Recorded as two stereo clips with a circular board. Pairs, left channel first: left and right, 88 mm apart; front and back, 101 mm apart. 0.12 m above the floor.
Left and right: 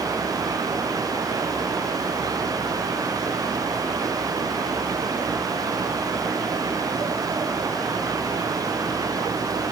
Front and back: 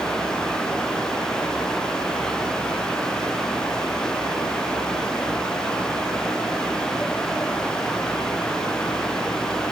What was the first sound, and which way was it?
Only background noise.